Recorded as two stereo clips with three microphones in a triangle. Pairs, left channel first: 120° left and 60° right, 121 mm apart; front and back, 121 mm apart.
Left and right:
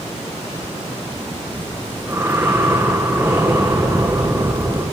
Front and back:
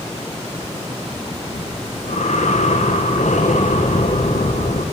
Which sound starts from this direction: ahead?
Breathing, at 1.5 s.